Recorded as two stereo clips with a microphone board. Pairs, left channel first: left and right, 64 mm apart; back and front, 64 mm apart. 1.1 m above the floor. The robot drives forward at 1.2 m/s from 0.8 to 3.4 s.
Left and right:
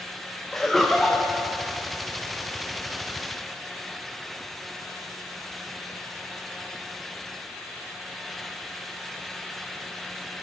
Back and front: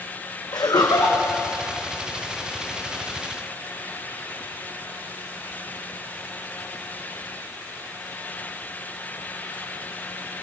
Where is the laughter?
175° left, 0.7 m.